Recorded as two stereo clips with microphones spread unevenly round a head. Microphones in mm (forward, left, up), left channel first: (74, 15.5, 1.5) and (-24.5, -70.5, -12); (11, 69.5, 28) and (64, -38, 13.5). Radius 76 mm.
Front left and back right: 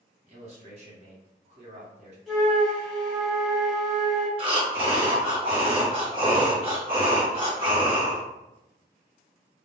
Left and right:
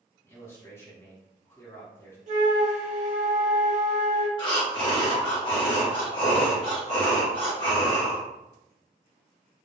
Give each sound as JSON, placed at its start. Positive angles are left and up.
{"t": 0.2, "sound": "a man speaking", "azimuth_deg": -170, "distance_m": 0.9}
{"t": 2.3, "sound": "a flute", "azimuth_deg": -40, "distance_m": 1.3}
{"t": 4.4, "sound": "breathing", "azimuth_deg": 175, "distance_m": 0.8}